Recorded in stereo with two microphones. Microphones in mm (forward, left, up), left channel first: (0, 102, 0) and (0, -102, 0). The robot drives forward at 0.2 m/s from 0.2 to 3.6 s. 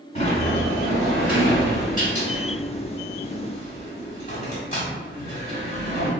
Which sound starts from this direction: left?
A sliding door, at 0.1 s.